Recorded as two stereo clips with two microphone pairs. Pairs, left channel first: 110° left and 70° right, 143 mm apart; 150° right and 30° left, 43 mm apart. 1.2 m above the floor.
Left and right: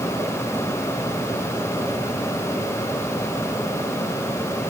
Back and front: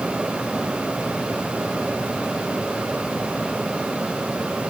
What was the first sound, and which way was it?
Only background noise.